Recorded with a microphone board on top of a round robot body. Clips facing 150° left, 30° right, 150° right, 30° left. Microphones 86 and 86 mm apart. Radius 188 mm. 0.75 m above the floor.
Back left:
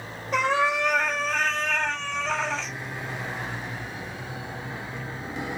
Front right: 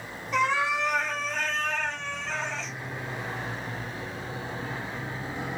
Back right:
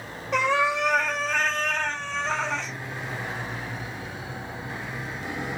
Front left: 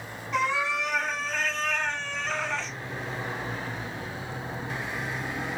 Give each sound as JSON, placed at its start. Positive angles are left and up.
{"t": 0.3, "sound": "a cat meowing", "azimuth_deg": -165, "distance_m": 1.6}